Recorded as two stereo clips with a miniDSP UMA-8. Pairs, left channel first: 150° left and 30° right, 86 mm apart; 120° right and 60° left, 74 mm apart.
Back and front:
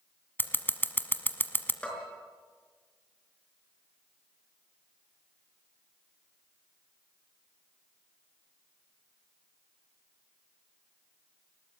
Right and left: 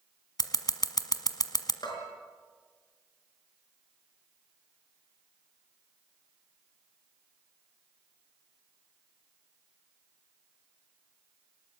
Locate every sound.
0.4 s scissors: 145° right, 1.2 m
1.8 s a bell: 135° right, 5 m